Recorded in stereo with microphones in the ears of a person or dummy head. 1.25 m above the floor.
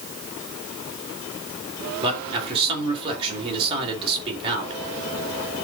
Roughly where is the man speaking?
Right.